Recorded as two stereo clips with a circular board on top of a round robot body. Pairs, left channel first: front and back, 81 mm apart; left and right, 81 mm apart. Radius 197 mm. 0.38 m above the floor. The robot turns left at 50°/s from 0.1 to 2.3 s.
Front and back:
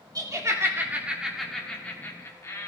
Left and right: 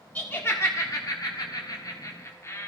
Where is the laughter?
155° left, 2 m; by 2.7 s 50° left, 2 m.